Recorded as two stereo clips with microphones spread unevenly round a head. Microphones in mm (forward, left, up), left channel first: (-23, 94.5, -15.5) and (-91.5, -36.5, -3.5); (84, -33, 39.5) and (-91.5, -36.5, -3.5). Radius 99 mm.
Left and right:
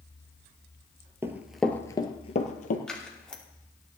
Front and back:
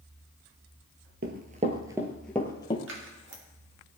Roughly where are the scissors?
Behind left.